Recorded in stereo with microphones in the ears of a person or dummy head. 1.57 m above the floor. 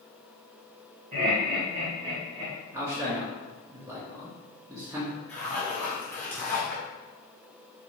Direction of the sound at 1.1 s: 45° right (ahead or behind).